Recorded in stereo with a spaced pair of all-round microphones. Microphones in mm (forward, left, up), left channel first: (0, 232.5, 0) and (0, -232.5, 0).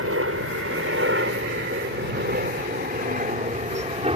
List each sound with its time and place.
0.0 s a helicopter: 30° right (ahead or behind); by 4.2 s 10° right (ahead or behind)